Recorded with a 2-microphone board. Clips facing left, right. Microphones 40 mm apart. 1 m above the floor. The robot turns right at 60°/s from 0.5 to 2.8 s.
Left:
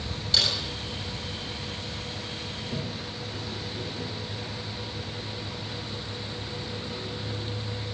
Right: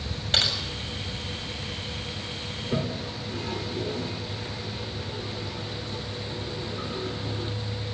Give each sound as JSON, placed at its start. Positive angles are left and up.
{"t": 0.3, "sound": "typing on a keyboard", "side_deg": -50, "distance_m": 7.0}
{"t": 2.6, "sound": "a toilet flushing", "side_deg": -65, "distance_m": 1.4}